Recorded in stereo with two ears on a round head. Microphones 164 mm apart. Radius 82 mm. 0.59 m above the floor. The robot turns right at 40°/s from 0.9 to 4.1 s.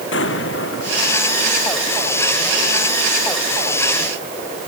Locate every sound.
0.1 s an explosion: 70° left (ahead or behind); by 1.2 s 80° left